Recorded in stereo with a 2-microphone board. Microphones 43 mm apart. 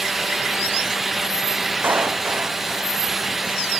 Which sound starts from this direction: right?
A clap, at 1.8 s.